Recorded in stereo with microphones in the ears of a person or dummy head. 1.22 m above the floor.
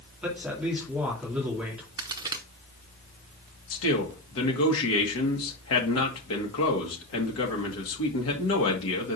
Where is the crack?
30° right (ahead or behind), 0.6 m.